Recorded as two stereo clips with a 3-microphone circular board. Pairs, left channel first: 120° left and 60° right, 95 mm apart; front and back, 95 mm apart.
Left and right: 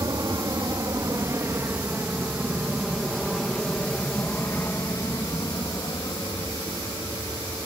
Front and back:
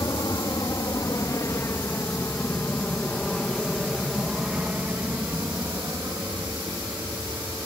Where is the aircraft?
30° right; by 7.7 s 135° left.